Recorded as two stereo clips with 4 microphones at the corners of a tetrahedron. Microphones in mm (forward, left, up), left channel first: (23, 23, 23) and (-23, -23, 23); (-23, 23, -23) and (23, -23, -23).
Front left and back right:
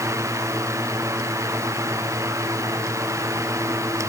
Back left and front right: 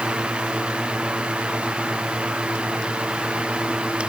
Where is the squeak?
No squeak in this recording.